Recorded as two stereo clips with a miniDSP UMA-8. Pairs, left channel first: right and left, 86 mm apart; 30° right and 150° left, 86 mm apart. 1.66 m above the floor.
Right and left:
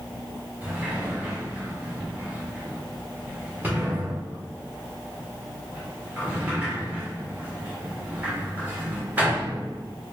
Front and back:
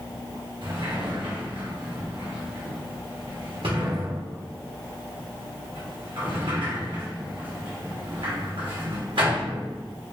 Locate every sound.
0.6 s a sliding door: 165° left, 1.2 m